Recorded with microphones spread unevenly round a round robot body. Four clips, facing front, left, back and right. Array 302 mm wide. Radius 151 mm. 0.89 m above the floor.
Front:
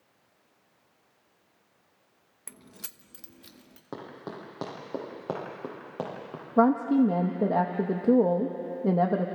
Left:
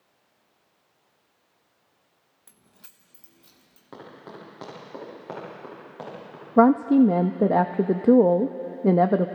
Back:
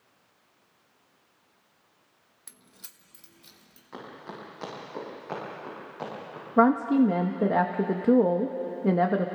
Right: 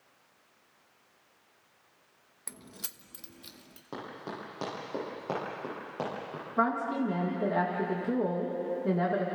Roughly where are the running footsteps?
Ahead.